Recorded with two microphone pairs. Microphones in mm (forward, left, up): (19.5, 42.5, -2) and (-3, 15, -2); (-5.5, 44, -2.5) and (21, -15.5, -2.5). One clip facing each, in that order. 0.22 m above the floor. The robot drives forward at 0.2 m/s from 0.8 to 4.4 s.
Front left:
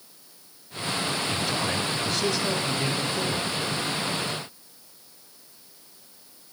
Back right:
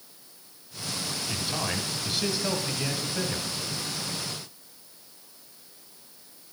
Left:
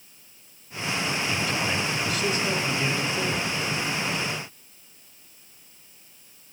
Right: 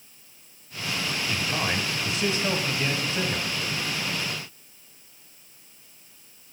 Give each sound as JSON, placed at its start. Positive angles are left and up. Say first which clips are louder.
{"t": 1.3, "sound": "a man speaking", "louder": "front left 4 dB, left 1 dB", "azimuth_deg": -50, "distance_m": 1.4}